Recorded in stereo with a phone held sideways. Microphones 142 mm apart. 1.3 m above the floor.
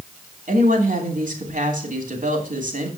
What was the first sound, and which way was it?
A woman speaking, 70° right (ahead or behind).